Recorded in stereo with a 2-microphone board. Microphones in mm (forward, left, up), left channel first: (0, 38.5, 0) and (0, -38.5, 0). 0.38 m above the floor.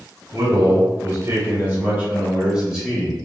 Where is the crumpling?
No crumpling in this recording.